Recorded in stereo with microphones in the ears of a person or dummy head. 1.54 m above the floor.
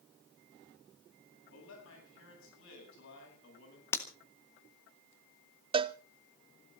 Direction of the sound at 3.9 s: 15° left (ahead or behind).